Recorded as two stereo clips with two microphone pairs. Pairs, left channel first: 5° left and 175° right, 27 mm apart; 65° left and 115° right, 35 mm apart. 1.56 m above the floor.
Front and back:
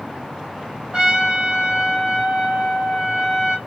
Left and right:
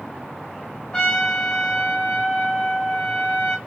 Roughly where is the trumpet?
Behind left.